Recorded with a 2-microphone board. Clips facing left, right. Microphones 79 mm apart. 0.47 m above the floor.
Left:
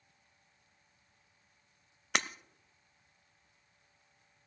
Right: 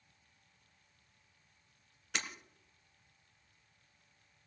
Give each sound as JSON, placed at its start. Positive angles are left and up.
{"t": 2.1, "sound": "breaking glass", "side_deg": 70, "distance_m": 0.6}